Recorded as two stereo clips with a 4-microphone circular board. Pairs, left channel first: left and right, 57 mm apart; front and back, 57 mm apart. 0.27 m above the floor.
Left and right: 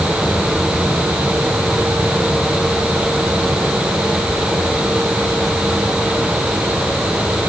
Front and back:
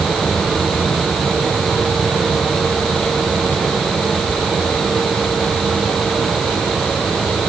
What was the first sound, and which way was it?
Only background noise.